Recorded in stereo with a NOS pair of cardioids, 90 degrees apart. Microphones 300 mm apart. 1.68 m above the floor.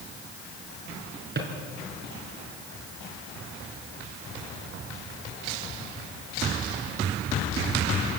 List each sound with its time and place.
1.4 s a drawer: 35° right, 5.5 m